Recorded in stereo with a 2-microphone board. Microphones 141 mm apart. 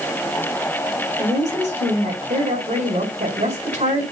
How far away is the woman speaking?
About 4.5 m.